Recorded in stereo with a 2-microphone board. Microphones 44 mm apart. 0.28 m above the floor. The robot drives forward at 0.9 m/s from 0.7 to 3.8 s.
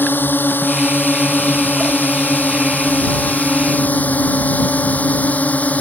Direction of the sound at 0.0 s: 45° left (ahead or behind).